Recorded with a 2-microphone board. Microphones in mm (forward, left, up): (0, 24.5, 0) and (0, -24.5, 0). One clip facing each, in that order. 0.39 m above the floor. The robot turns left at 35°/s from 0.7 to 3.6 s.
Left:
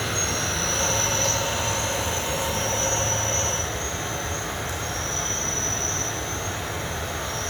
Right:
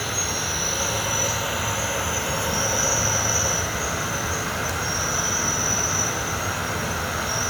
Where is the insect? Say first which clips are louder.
Left 1 dB; straight ahead, 1.0 m; by 7.5 s 100° right, 1.0 m.